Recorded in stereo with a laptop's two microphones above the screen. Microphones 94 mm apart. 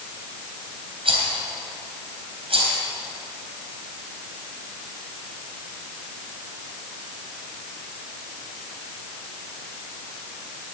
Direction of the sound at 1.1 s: 80° right.